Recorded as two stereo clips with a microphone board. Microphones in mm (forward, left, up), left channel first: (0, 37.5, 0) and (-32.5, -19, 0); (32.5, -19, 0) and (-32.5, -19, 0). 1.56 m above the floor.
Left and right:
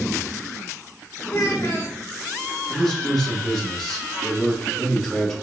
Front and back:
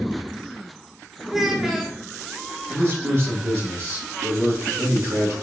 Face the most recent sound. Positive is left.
turn(degrees=145)